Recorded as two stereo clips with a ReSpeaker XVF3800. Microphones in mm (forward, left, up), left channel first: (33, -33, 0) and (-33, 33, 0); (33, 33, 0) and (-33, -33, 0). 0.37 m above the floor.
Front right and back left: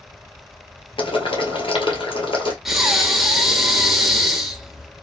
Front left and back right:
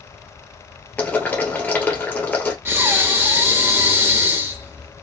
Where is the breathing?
145° right, 1.2 m.